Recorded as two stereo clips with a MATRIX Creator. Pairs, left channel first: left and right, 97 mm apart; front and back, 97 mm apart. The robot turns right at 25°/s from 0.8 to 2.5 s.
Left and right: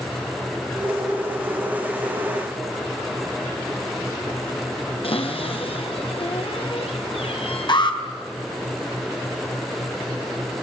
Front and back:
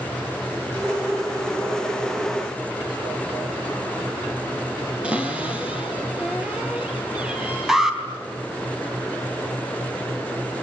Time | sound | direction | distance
5.0 | a cupboard door | 100° left | 4 m
7.7 | an alarm | 95° left | 3.5 m